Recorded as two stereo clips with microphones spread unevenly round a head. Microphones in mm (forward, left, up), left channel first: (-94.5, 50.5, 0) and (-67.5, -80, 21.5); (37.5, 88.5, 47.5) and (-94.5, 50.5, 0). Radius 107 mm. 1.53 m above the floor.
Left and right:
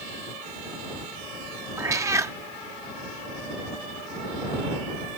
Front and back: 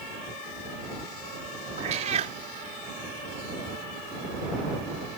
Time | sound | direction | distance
1.8 | a cat meowing | 105° right | ?